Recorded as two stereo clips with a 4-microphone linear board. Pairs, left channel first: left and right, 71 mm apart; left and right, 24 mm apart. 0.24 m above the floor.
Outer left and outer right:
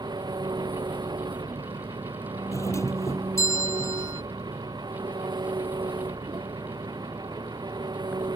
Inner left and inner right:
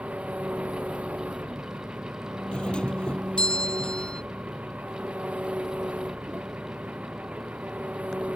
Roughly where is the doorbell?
Left.